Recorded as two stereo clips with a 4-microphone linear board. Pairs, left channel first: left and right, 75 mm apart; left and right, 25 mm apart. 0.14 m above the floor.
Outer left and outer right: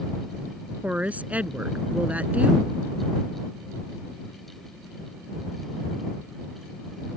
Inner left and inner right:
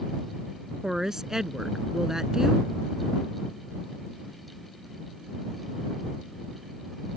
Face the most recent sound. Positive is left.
turn(degrees=-20)  # may be behind; listen again after turning